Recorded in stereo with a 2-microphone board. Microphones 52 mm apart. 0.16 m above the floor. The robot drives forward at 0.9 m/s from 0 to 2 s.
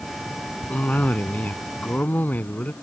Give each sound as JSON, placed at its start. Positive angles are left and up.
{"t": 0.7, "sound": "a cough", "side_deg": 30}